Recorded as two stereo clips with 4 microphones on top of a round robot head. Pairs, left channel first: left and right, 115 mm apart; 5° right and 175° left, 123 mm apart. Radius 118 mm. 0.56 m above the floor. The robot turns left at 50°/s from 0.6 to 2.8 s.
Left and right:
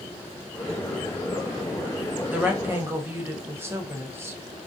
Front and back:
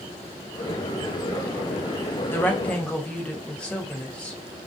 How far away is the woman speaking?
About 0.7 m.